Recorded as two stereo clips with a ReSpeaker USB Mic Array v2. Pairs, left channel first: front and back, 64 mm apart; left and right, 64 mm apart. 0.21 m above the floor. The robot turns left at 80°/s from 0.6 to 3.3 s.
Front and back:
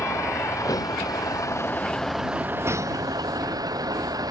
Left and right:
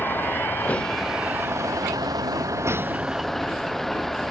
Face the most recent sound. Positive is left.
turn(degrees=175)